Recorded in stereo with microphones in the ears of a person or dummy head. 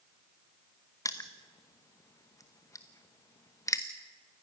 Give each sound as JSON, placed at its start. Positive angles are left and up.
{"t": 1.1, "sound": "crushing", "side_deg": 15, "distance_m": 0.9}